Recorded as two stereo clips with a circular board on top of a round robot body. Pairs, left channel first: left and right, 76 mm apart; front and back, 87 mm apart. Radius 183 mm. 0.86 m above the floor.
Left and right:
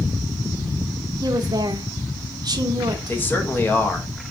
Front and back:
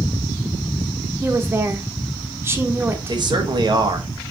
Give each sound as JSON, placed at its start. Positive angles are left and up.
{"t": 1.2, "sound": "a woman speaking", "azimuth_deg": -120, "distance_m": 0.7}
{"t": 3.1, "sound": "a man speaking", "azimuth_deg": 155, "distance_m": 1.3}